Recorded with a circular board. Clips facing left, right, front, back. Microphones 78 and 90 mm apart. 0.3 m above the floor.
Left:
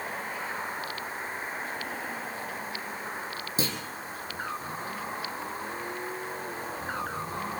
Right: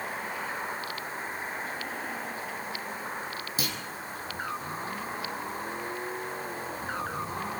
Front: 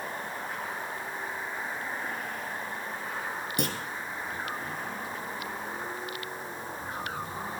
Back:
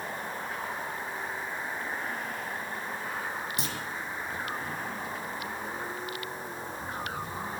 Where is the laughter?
I don't hear laughter.